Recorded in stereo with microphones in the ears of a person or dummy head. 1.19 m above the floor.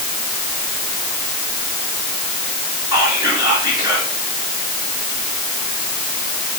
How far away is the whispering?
About 3 m.